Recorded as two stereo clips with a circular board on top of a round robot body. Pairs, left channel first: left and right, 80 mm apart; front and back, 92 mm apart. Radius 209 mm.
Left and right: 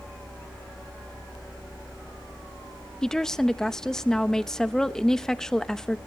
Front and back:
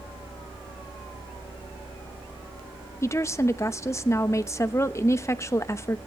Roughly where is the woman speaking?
Ahead.